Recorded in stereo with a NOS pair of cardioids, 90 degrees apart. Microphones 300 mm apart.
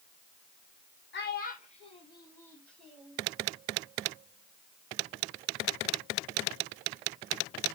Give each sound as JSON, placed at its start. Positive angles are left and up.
{"t": 1.1, "sound": "a child speaking", "azimuth_deg": 35, "distance_m": 0.9}